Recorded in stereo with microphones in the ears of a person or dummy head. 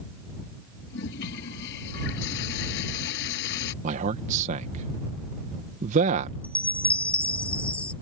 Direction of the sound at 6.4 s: 10° left (ahead or behind).